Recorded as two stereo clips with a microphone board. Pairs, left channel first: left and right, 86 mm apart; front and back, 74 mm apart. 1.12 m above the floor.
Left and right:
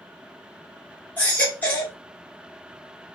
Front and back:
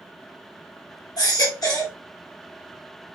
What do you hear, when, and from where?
1.2 s a baby crying: 25° left, 1.2 m